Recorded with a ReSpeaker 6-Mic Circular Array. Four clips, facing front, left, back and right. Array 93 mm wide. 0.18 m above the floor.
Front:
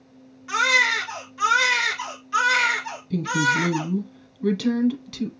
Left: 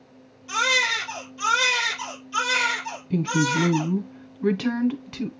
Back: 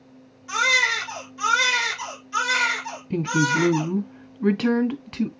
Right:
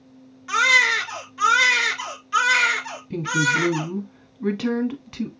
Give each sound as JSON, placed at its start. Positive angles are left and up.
{"t": 0.5, "sound": "a baby crying", "azimuth_deg": -65, "distance_m": 2.0}
{"t": 3.1, "sound": "a woman speaking", "azimuth_deg": 180, "distance_m": 1.2}